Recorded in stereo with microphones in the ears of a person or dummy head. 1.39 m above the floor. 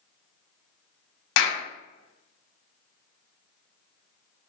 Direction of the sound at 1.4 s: 85° left.